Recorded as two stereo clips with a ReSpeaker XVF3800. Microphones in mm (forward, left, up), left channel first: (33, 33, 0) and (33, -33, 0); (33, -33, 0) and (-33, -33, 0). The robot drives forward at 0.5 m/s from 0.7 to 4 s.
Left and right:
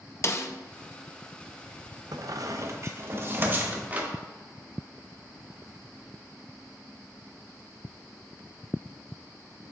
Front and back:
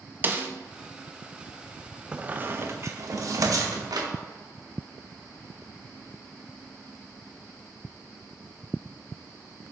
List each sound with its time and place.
0.2 s a snare drum: 125° left, 0.6 m
2.1 s a squeak: 105° right, 0.5 m; by 4.1 s 155° right, 1.2 m